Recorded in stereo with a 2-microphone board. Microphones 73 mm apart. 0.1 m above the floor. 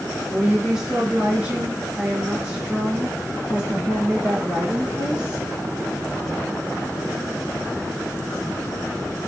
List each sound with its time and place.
0.3 s a woman speaking: 10° right (ahead or behind), 1.4 m; by 5.5 s 15° right (ahead or behind), 2.5 m